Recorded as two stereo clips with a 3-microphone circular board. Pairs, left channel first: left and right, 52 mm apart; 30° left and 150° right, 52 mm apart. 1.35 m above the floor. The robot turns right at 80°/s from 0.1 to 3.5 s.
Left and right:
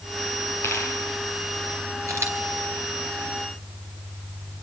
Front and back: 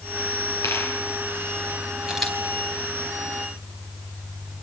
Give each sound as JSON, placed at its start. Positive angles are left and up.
{"t": 0.6, "sound": "a dropped coin", "azimuth_deg": 50, "distance_m": 10.0}
{"t": 2.1, "sound": "a camera shutter", "azimuth_deg": -75, "distance_m": 5.0}